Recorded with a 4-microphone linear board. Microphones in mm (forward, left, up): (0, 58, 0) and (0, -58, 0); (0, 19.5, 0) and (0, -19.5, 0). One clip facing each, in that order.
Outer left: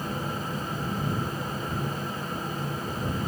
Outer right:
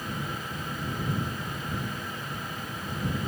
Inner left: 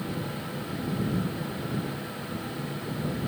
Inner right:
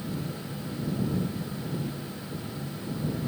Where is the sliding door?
No sliding door in this recording.